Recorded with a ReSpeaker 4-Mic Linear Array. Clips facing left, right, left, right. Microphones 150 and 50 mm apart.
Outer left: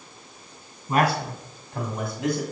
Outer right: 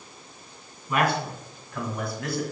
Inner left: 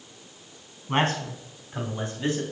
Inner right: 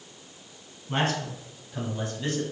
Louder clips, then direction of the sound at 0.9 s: Outer left 2 dB, inner left 3 dB; 35° left (ahead or behind).